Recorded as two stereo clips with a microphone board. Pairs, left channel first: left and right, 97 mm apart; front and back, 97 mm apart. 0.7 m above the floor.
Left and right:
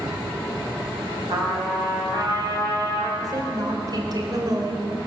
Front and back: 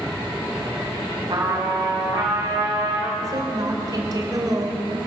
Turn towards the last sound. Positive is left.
turn(degrees=-135)